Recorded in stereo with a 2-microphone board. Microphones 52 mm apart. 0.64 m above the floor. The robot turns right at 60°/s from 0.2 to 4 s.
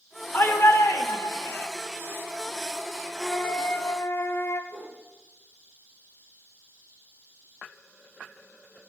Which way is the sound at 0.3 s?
50° left.